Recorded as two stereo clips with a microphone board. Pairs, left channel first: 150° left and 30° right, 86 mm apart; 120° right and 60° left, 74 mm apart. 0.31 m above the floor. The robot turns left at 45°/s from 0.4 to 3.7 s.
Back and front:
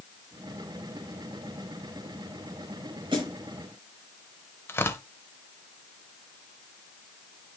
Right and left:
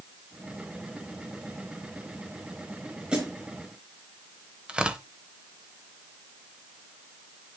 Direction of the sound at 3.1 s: 15° right.